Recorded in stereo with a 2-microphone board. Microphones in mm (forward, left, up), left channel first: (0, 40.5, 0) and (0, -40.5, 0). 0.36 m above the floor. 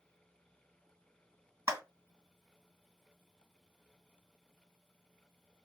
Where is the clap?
30° right (ahead or behind), 2 m.